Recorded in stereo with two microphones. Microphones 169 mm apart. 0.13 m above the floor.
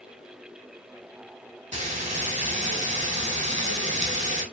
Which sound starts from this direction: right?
Frying, at 1.7 s.